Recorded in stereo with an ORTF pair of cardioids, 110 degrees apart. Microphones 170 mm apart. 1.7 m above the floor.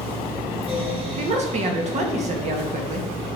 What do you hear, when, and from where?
0.0 s a fan: 40° right, 4.5 m
1.2 s a woman speaking: 45° right, 2.0 m